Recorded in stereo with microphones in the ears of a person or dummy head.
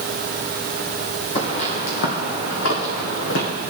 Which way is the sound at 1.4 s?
35° left (ahead or behind).